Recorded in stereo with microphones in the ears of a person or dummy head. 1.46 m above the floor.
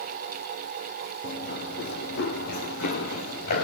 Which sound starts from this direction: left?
Running footsteps, at 1.2 s.